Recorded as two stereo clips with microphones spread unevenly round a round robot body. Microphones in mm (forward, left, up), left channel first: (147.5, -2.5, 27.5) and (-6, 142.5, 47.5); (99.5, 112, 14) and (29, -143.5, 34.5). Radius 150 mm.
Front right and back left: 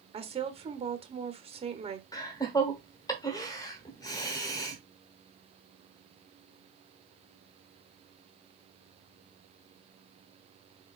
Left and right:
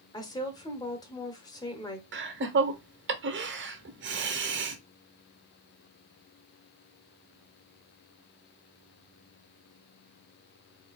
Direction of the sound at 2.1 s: 100° right.